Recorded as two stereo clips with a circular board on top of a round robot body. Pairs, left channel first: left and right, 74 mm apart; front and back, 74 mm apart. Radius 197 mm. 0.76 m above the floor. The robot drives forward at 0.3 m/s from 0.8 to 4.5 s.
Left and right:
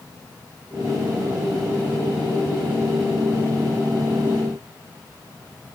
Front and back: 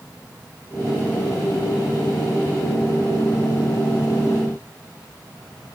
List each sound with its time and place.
Only background noise.